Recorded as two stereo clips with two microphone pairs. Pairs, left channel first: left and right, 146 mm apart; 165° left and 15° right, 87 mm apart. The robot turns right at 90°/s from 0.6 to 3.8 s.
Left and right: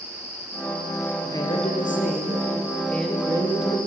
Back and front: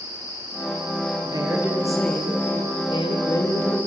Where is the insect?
115° left, 0.9 m; by 3.9 s 45° left, 0.9 m.